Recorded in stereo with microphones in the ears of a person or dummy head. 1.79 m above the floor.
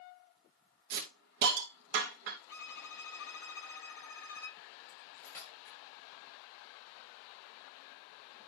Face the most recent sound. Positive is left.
turn(degrees=20)  # may be behind; listen again after turning